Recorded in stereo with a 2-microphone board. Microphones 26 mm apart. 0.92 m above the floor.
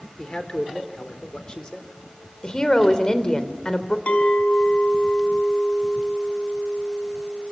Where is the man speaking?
35° left (ahead or behind), 3.5 m.